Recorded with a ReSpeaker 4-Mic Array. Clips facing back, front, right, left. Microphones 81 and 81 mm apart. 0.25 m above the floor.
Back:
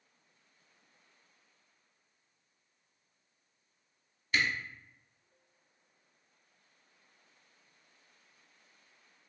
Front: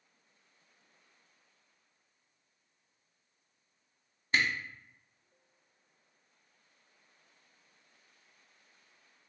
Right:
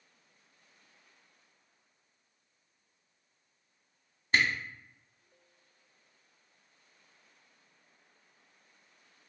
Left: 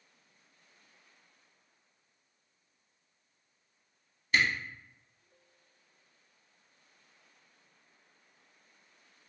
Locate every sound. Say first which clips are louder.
4.3 s a camera shutter: front 1 dB, even; 45° right, 1.1 m